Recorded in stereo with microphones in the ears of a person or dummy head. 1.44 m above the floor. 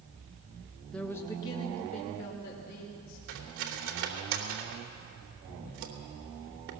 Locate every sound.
0.9 s a man speaking: 5° left (ahead or behind), 1.4 m; by 3.2 s 50° left (ahead or behind), 3 m
3.3 s cutlery clinking: 75° right (ahead or behind), 2.5 m